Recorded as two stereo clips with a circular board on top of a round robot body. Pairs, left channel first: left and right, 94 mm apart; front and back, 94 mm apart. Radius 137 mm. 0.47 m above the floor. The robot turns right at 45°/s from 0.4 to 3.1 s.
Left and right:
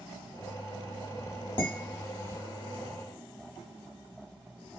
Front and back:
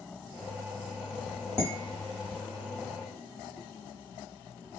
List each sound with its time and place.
1.6 s dishes clattering: 120° left, 1.4 m; by 2.4 s 155° left, 1.4 m